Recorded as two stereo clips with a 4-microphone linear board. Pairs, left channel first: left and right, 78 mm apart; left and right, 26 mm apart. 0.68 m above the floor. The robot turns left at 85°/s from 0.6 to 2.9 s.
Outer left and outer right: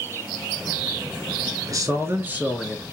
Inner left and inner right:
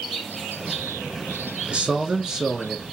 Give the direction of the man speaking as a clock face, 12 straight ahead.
3 o'clock.